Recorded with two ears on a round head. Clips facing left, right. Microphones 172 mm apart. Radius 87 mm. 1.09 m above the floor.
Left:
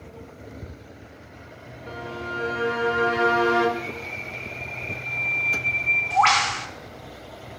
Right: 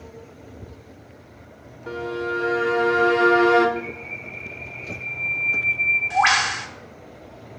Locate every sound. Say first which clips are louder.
1.9 s a violin: right 7 dB; 55° right (ahead or behind), 1.2 m
3.8 s a bird: right 1 dB; 10° right (ahead or behind), 1.0 m